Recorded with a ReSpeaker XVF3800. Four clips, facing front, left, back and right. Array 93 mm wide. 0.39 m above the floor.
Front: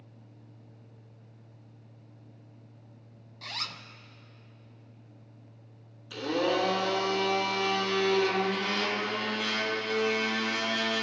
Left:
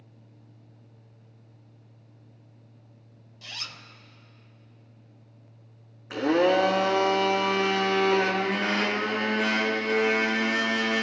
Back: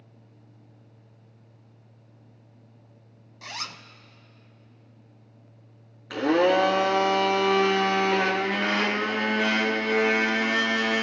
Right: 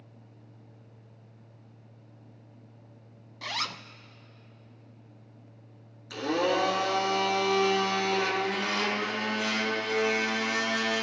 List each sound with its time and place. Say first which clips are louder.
3.4 s a zipper: right 8 dB, back 2 dB; 100° right, 0.5 m
6.1 s a blender: left 5 dB, back 8 dB; 150° left, 1.8 m